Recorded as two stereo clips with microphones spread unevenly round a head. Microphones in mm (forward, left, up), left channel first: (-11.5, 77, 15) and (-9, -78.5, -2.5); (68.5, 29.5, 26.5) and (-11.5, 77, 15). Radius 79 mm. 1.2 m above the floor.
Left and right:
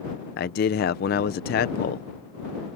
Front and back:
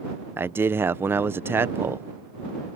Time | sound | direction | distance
0.4 | a man speaking | 95° left | ?